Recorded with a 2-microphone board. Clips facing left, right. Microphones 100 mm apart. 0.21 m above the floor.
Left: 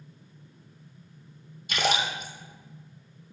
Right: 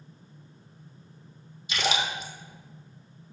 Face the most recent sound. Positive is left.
turn(degrees=50)  # may be behind; listen again after turning